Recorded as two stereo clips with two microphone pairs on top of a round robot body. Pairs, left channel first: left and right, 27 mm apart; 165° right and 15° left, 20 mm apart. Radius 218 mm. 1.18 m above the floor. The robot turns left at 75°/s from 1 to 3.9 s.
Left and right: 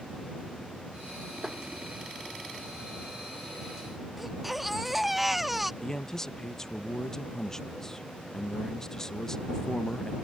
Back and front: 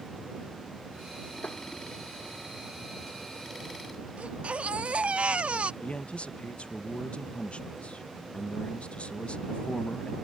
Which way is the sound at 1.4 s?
160° right.